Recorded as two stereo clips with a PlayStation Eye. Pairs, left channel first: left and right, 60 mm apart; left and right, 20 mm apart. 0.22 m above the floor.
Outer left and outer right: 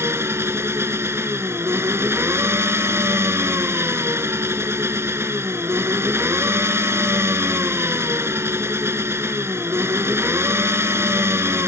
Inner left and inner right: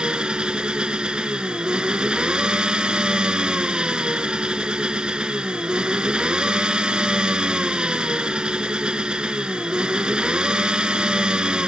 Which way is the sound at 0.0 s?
50° right (ahead or behind).